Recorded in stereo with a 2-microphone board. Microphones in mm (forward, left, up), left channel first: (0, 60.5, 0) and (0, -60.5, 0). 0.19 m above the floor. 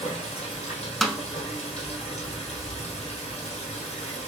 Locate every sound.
0.0 s running water: 60° left (ahead or behind), 2.5 m
1.0 s a snare drum: centre (ahead or behind), 0.7 m